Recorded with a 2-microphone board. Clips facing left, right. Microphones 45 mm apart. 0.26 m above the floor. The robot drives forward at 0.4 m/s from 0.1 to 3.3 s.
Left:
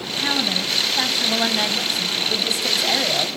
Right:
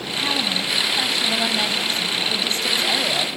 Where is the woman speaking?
5° left (ahead or behind), 2 m; by 3.4 s 10° left (ahead or behind), 1.4 m.